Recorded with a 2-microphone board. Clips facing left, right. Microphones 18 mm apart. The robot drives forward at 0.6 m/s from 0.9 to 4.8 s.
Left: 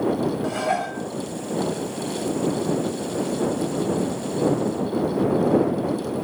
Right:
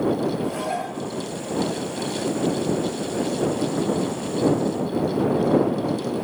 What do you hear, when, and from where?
0.4 s dishes clattering: 35° left (ahead or behind), 1.6 m